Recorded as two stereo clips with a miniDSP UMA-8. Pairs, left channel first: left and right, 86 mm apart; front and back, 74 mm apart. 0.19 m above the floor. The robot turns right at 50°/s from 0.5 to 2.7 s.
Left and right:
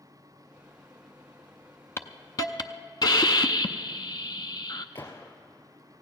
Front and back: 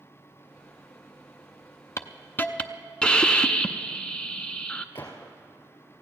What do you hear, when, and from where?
2.0 s a hiss: 35° left, 0.6 m; by 4.8 s 75° left, 0.6 m
5.0 s a gunshot: 45° left, 3 m